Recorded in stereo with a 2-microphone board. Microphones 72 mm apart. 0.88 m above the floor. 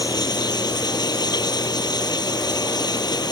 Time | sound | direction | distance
0.0 | running water | 70° left (ahead or behind) | ?